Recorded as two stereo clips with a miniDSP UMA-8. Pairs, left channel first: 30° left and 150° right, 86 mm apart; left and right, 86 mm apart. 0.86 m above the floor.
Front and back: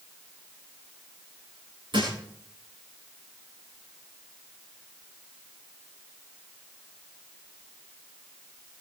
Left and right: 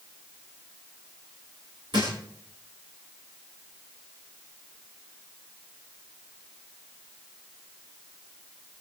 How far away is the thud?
About 7.5 m.